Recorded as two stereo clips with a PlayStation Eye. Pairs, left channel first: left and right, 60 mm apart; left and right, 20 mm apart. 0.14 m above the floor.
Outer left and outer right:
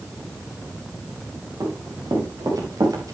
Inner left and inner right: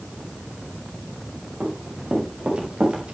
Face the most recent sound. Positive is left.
turn(degrees=-85)